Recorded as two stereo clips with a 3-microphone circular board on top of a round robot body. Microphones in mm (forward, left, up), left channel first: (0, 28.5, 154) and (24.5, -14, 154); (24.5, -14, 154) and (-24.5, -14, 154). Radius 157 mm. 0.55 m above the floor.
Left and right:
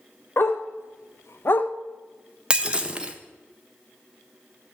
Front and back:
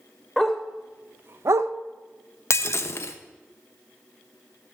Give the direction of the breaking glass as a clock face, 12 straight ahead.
12 o'clock.